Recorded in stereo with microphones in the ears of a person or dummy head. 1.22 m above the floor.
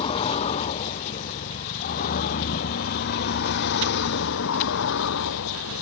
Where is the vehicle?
35° left (ahead or behind); by 5.8 s 80° left.